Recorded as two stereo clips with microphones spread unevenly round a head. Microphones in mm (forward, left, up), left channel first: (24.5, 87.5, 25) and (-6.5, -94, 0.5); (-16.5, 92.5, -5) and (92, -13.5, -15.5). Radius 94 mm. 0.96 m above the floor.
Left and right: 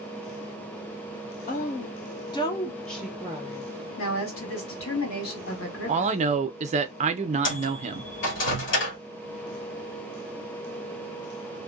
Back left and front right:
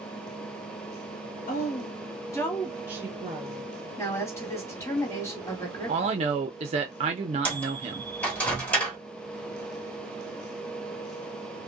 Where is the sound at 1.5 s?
120° left, 0.9 m; by 3.7 s 45° right, 0.8 m.